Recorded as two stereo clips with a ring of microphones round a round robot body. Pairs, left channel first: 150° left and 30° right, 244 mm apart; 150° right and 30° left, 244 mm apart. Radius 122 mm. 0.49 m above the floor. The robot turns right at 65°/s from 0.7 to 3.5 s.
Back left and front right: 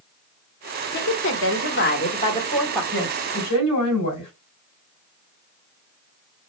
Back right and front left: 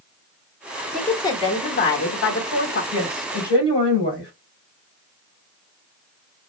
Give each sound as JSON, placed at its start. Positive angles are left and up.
{"t": 0.9, "sound": "a woman speaking", "azimuth_deg": 120, "distance_m": 1.1}
{"t": 2.9, "sound": "a woman speaking", "azimuth_deg": 100, "distance_m": 3.0}